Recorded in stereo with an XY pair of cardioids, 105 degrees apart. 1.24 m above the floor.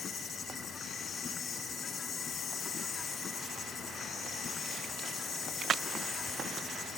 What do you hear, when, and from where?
0.0 s an insect: 50° left